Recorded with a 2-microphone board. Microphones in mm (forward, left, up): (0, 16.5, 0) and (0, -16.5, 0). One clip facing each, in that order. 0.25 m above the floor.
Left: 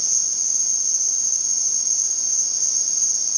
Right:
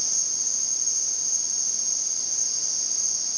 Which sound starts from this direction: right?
An insect, at 0.0 s.